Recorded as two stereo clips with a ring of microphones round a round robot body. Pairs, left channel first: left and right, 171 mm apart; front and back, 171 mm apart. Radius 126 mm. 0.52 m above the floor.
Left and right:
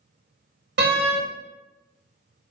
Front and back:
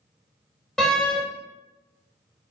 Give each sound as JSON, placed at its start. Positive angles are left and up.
{"t": 0.8, "sound": "a door slam", "azimuth_deg": -85, "distance_m": 1.3}